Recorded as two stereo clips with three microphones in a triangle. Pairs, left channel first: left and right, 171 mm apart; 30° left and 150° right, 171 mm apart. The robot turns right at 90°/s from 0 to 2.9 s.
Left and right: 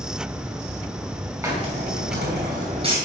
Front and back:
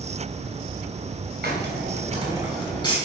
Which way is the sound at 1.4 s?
160° right.